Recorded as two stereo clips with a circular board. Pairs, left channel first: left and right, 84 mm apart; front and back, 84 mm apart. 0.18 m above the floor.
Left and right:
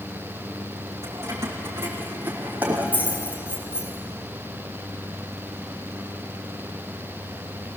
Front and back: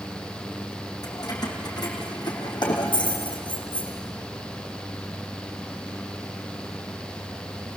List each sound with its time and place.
1.0 s keys jangling: 35° right, 4.5 m; by 3.9 s 10° right, 4.5 m